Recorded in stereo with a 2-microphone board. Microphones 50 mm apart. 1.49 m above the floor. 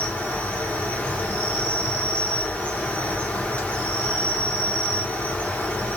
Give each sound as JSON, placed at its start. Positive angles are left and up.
{"t": 0.0, "sound": "an insect", "side_deg": 25, "distance_m": 0.8}